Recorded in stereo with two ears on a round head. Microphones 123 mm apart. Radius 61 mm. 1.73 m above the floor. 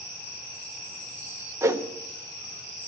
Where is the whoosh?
20° right (ahead or behind), 1.0 m.